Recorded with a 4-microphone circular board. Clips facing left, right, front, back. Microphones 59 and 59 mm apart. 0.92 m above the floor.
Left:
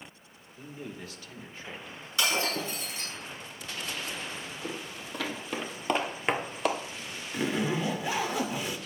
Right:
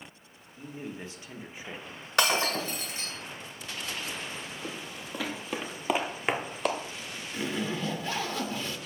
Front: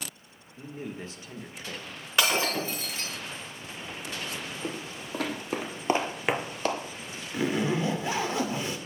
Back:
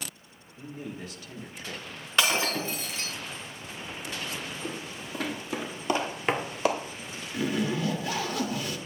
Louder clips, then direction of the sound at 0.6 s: Right 2 dB, front 1 dB; 35° right.